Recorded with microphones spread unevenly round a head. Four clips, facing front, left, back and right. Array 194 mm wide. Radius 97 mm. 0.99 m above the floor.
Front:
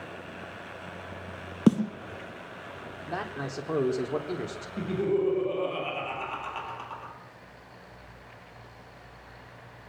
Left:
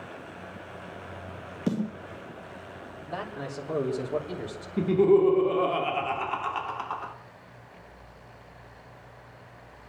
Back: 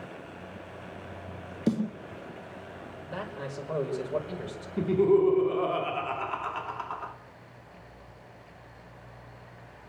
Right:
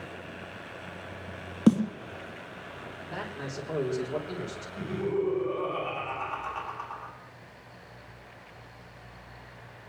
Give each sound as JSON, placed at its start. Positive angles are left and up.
{"t": 1.7, "sound": "a snare drum", "azimuth_deg": -25, "distance_m": 2.5}
{"t": 3.1, "sound": "a man speaking", "azimuth_deg": 15, "distance_m": 3.5}
{"t": 4.8, "sound": "laughter", "azimuth_deg": 90, "distance_m": 1.9}